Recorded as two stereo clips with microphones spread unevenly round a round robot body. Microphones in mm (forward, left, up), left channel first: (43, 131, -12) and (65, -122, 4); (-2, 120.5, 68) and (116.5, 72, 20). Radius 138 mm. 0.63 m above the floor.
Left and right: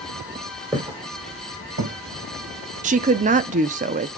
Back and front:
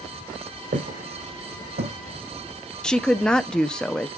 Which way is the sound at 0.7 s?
10° right.